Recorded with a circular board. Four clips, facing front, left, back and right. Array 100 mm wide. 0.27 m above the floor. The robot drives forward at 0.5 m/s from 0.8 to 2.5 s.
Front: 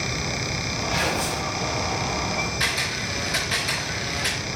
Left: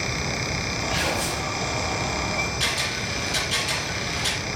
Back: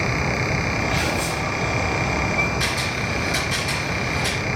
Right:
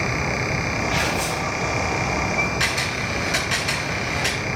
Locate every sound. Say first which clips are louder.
0.9 s tearing paper: right 3 dB, back 2 dB; 65° right, 4 m; by 1.5 s 70° right, 4 m
2.6 s a camera shutter: right 4 dB, back 3 dB; 80° right, 4 m